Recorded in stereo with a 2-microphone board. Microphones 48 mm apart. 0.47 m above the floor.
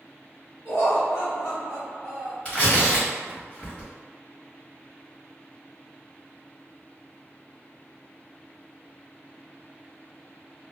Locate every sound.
0.7 s laughter: 45° left (ahead or behind), 1.4 m
2.5 s tearing paper: 25° left (ahead or behind), 1.3 m